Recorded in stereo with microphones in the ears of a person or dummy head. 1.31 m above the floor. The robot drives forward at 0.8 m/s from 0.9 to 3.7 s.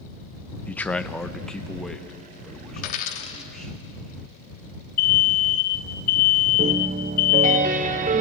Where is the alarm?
40° left (ahead or behind), 1.4 m.